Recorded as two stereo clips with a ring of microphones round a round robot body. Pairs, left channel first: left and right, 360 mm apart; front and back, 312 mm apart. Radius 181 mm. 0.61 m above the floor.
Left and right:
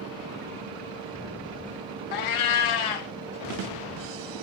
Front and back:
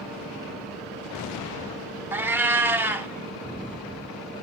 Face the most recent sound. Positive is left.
turn(degrees=95)